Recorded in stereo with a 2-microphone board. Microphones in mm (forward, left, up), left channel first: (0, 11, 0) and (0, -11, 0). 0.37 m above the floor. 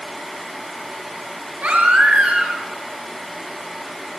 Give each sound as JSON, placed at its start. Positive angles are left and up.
{"t": 1.6, "sound": "a baby crying", "side_deg": -75, "distance_m": 5.5}